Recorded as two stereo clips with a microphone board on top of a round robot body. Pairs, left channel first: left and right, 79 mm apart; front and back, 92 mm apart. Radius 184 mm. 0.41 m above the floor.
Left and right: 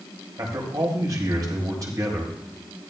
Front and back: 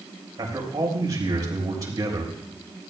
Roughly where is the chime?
I don't hear a chime.